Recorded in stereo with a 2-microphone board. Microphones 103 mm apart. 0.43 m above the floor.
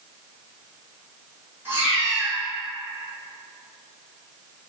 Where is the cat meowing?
20° right (ahead or behind), 1.6 m.